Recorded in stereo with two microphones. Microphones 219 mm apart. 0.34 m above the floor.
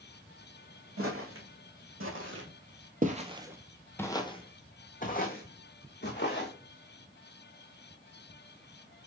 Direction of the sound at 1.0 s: 80° right.